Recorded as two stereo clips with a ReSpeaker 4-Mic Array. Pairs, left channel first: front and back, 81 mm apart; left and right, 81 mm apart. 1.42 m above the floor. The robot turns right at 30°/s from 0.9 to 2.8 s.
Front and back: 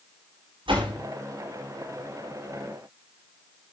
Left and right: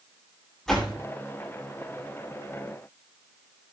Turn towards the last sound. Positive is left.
turn(degrees=-125)